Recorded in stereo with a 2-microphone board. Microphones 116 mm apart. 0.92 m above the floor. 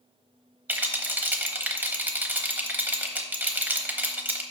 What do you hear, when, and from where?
0.7 s a rattle: 15° right (ahead or behind), 0.8 m